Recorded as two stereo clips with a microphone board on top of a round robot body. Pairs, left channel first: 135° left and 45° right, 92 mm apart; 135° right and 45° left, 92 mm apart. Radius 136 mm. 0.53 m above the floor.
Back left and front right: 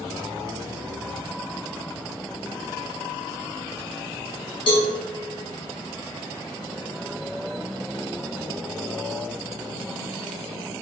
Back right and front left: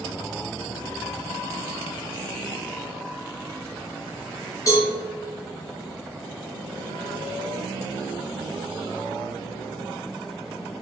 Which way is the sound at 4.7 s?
170° left.